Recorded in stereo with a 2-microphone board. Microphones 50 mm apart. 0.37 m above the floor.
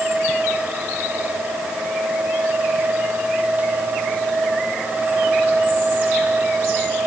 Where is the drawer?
I don't hear a drawer.